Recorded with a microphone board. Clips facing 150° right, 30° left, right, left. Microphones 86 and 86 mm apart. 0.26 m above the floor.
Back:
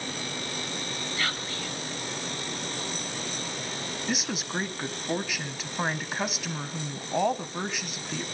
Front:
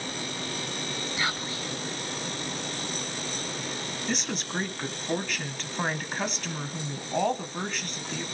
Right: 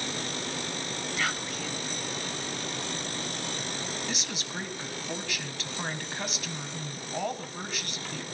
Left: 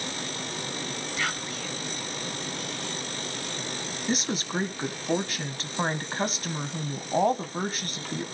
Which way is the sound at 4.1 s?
130° left.